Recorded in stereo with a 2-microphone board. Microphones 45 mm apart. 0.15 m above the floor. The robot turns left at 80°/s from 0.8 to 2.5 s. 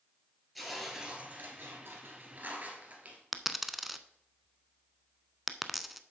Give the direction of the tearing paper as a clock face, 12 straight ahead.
12 o'clock.